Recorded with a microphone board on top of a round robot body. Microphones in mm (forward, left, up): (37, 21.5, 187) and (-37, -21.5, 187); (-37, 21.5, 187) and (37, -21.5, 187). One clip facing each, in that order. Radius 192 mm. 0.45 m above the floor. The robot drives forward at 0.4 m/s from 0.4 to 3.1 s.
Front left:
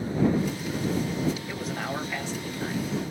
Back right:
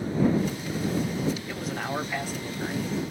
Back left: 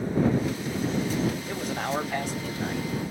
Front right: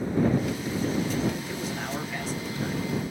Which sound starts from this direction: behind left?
A man speaking, at 1.5 s.